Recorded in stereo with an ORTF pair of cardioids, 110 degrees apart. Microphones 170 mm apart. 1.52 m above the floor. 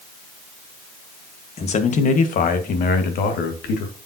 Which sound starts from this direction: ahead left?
A man speaking, at 1.6 s.